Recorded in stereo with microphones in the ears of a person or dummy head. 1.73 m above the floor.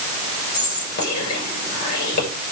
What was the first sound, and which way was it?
Whispering, 50° left (ahead or behind).